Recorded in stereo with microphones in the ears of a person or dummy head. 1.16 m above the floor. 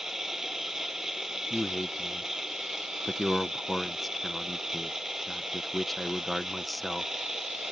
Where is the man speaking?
Centre (ahead or behind).